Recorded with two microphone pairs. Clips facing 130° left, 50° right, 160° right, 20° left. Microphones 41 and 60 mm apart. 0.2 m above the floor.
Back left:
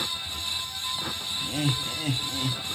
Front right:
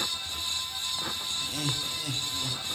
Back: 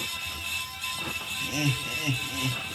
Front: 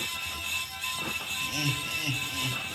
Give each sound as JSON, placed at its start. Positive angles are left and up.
{"t": 1.4, "sound": "laughter", "azimuth_deg": 160, "distance_m": 1.1}